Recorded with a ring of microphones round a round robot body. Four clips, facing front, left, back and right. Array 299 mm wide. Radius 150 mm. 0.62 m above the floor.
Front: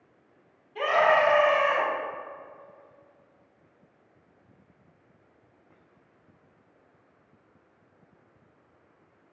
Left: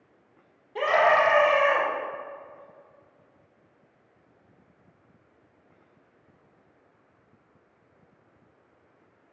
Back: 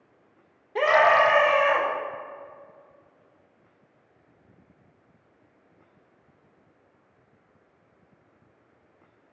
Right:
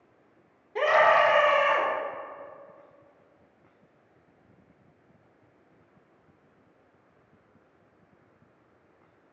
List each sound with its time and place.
0.8 s a scream: 175° right, 1.9 m; by 1.9 s 165° left, 3.5 m